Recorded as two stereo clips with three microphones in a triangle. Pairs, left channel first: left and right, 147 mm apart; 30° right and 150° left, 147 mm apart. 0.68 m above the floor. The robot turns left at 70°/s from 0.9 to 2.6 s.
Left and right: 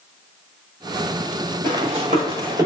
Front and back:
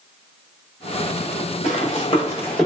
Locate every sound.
1.6 s running footsteps: 35° right, 1.3 m; by 2.6 s 110° right, 0.7 m